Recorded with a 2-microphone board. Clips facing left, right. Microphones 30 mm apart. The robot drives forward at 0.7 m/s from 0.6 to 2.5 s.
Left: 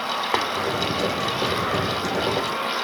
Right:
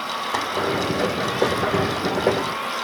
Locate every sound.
0.3 s tapping: 50° left (ahead or behind), 2 m